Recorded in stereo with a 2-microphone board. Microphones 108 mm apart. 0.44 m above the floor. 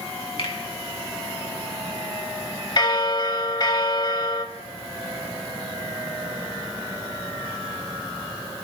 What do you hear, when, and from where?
0.4 s a finger snap: 60° left (ahead or behind), 3.5 m
2.8 s a bell: 45° left (ahead or behind), 0.9 m